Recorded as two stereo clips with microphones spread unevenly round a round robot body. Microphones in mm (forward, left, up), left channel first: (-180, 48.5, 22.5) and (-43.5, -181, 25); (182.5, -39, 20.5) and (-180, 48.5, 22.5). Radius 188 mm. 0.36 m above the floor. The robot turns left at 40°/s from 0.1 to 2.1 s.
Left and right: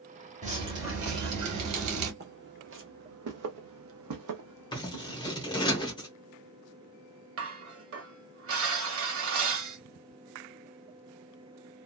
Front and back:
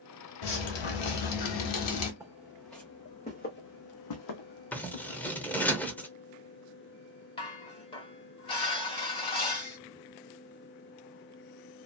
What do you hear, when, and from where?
0.4 s dripping: 10° left, 1.1 m; by 2.1 s 60° right, 1.1 m
2.2 s footsteps: 115° right, 1.2 m; by 5.2 s 20° right, 1.1 m
4.7 s scissors: 65° left, 0.7 m
7.4 s dishes clattering: 90° right, 1.5 m